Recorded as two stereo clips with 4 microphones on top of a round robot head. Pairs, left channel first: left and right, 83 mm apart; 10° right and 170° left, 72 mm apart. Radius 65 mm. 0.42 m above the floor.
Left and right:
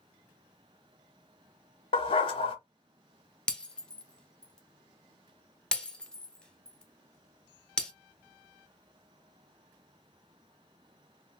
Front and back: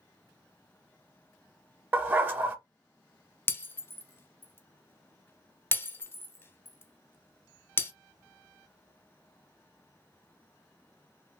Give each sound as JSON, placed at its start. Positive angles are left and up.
{"t": 1.9, "sound": "a dog barking", "azimuth_deg": 105, "distance_m": 0.6}
{"t": 3.5, "sound": "breaking glass", "azimuth_deg": 20, "distance_m": 0.7}